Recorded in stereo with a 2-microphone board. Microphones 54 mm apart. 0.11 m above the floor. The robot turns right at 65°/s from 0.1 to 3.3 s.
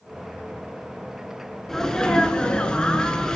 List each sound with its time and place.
1.7 s a sneeze: 10° left (ahead or behind), 1.4 m; by 3.4 s 15° left (ahead or behind), 1.4 m